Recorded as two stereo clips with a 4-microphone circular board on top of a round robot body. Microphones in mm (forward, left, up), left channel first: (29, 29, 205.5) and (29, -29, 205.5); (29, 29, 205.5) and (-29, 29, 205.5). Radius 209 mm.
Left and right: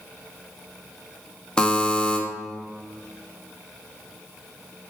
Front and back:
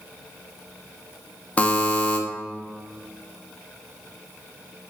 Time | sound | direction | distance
1.6 | a buzzer | 30° left | 0.7 m